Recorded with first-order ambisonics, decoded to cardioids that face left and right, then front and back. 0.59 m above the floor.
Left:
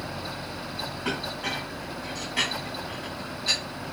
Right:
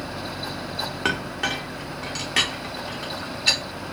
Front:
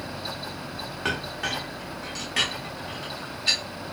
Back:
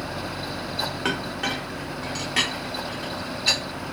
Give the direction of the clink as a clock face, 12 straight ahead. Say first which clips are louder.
Right 5 dB, front 3 dB; 3 o'clock.